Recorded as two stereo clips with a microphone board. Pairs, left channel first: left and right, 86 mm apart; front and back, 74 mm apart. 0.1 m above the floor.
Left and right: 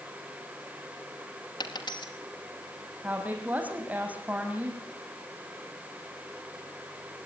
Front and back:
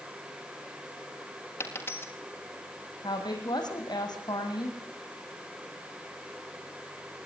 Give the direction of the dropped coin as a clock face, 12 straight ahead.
10 o'clock.